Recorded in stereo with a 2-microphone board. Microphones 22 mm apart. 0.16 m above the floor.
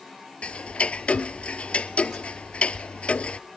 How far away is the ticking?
About 0.5 m.